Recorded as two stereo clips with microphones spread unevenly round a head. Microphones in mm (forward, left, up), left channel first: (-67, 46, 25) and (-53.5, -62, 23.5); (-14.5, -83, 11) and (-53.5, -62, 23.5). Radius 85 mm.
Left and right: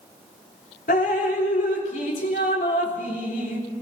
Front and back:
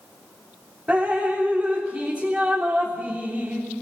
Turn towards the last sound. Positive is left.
turn(degrees=70)